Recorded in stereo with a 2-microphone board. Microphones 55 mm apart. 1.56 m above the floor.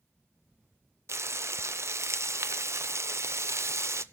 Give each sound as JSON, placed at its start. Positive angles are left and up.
{"t": 1.1, "sound": "frying", "side_deg": -60, "distance_m": 0.6}